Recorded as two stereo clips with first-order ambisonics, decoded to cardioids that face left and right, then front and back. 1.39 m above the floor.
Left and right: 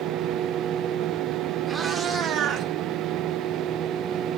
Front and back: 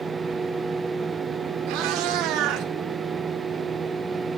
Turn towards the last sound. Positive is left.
turn(degrees=-140)